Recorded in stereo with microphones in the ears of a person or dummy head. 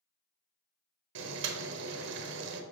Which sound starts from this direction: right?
Boiling, at 1.1 s.